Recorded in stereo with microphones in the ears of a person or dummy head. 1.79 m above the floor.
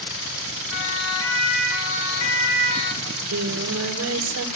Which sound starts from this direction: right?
Singing, at 3.0 s.